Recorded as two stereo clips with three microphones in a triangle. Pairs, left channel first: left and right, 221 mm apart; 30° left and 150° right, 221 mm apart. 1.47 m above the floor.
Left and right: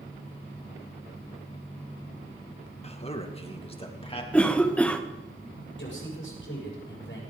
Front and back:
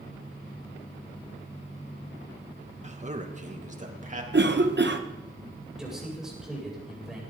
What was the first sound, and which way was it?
A man speaking, 155° left.